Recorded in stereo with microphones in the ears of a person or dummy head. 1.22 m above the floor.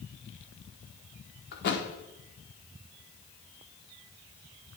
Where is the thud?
50° left (ahead or behind), 1.4 m.